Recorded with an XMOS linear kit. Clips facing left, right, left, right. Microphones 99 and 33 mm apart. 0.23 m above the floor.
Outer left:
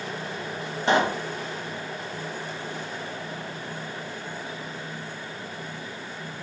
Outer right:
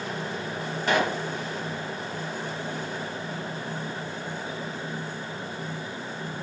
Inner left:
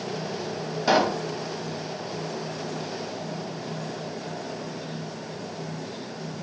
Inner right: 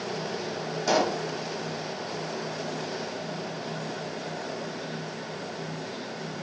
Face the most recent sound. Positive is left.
turn(degrees=25)  # may be behind; listen again after turning